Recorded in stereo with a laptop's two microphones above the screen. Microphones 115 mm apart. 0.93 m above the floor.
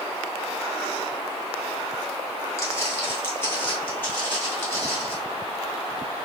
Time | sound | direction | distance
2.6 | footsteps | 25° left (ahead or behind) | 1.0 m